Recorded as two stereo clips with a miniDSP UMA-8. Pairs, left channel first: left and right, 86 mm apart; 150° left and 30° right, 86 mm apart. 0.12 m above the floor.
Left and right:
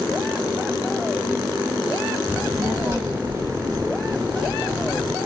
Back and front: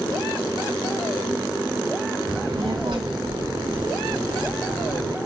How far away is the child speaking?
About 3 m.